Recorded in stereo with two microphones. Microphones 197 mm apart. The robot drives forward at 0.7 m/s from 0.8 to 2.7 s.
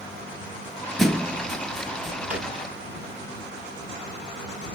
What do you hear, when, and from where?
1.0 s a thud: centre (ahead or behind), 0.6 m
2.3 s a drawer: 5° right (ahead or behind), 1.2 m